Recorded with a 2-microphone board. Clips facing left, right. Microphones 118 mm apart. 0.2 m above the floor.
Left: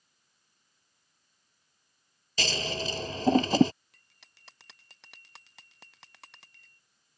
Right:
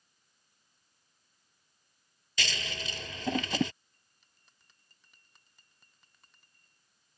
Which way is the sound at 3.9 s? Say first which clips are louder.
Left 7 dB; 90° left.